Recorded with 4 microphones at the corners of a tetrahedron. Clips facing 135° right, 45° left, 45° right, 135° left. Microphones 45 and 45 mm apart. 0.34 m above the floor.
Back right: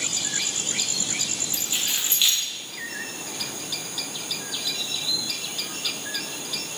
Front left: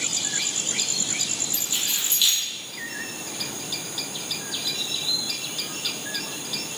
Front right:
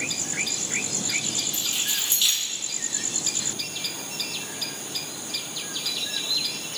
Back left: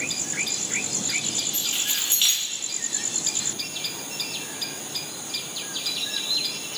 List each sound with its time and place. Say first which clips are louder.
1.5 s keys jangling: back right 1 dB, back left 1 dB; 175° left, 1.4 m